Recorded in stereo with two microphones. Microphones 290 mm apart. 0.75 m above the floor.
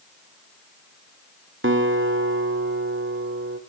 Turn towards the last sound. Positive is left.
turn(degrees=-45)  # may be behind; listen again after turning